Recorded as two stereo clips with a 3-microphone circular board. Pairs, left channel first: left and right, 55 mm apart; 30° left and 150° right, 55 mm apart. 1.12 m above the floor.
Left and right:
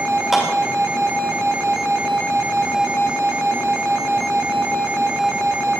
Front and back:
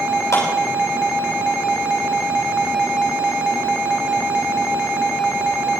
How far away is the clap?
About 7.5 m.